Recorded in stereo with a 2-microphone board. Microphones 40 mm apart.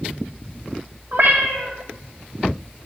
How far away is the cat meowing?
About 1.3 m.